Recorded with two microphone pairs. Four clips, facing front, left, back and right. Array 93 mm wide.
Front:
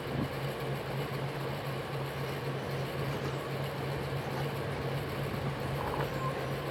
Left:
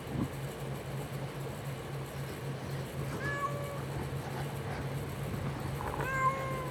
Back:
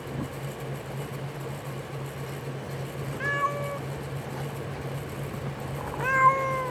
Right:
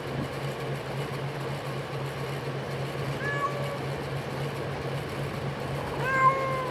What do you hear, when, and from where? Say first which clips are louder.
3.2 s a cat meowing: right 6 dB, back 8 dB; 165° right; by 6.7 s 150° right